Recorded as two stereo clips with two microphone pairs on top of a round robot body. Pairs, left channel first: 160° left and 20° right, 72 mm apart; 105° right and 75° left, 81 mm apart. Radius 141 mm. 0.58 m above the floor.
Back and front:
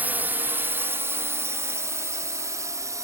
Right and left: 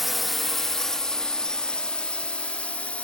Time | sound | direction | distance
0.0 | a drone | 30° right | ?